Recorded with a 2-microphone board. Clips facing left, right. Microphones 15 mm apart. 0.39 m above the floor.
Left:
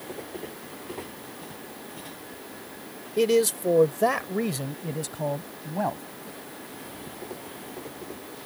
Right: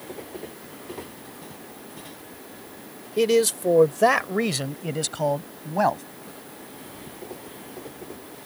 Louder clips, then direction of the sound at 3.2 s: Right 2 dB; 10° right (ahead or behind).